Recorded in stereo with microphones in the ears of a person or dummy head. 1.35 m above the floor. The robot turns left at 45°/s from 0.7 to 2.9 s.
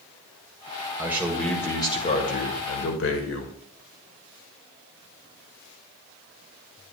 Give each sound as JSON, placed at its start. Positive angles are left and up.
{"t": 1.0, "sound": "a man speaking", "azimuth_deg": -165, "distance_m": 1.3}